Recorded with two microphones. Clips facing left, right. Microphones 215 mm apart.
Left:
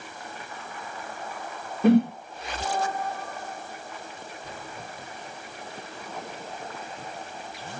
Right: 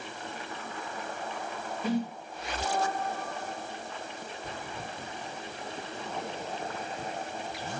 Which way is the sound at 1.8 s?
60° left (ahead or behind).